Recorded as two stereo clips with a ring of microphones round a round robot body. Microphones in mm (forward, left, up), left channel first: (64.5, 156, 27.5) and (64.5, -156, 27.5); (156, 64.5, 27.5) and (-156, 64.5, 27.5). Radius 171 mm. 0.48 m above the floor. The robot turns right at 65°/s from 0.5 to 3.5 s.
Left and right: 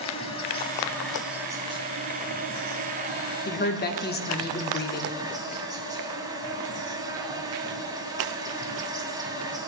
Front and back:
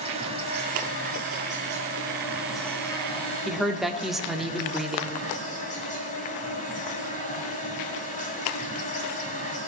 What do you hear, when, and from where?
0.0 s an insect: 135° left, 1.9 m; by 9.7 s 30° right, 1.9 m
3.5 s a woman speaking: 90° left, 1.1 m